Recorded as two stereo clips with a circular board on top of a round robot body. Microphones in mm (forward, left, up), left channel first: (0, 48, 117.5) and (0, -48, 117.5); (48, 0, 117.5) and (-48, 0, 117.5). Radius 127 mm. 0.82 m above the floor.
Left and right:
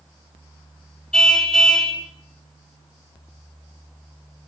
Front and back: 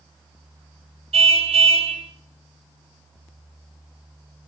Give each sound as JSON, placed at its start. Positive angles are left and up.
{"t": 1.1, "sound": "a car horn", "azimuth_deg": 175, "distance_m": 3.5}